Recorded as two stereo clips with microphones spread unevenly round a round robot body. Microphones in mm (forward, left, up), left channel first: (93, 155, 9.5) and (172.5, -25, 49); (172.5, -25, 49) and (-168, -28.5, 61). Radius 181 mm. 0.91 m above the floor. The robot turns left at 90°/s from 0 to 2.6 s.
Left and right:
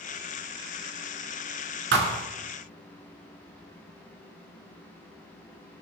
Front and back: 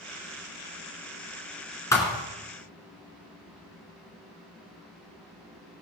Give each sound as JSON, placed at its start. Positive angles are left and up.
{"t": 1.9, "sound": "a thud", "azimuth_deg": -80, "distance_m": 1.9}